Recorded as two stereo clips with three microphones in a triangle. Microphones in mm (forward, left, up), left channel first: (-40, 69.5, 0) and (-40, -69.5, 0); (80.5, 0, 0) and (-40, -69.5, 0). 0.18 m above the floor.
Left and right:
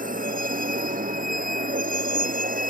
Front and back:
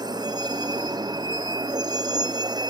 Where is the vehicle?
90° right.